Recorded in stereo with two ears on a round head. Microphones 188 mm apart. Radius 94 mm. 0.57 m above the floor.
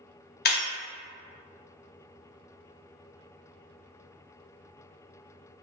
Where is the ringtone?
I don't hear a ringtone.